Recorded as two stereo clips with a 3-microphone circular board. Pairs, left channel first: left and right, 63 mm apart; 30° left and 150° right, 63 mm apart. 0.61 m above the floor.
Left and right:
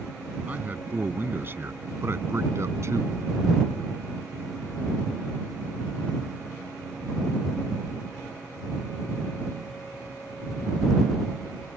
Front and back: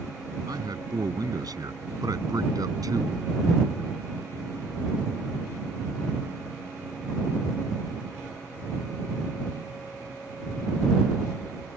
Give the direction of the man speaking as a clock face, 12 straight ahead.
5 o'clock.